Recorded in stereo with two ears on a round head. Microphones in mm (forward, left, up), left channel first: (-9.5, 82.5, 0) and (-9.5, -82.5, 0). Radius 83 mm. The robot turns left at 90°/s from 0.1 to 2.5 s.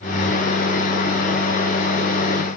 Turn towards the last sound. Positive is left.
No sound to turn to.